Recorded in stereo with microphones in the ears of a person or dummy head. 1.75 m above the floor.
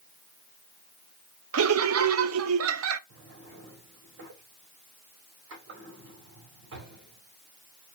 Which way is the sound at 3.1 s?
75° right (ahead or behind).